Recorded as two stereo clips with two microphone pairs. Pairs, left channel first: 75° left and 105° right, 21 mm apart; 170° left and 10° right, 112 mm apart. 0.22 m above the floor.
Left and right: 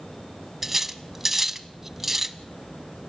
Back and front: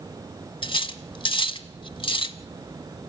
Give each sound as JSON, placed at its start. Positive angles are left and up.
{"t": 0.6, "sound": "cutlery clinking", "azimuth_deg": 175, "distance_m": 0.8}